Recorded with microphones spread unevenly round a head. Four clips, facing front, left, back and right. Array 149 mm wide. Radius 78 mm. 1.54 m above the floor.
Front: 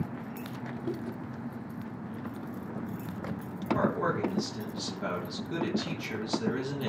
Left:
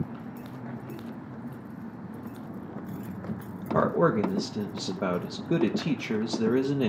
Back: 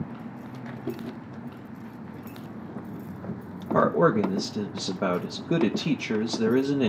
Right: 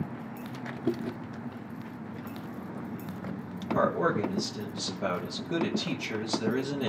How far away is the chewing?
About 1.4 m.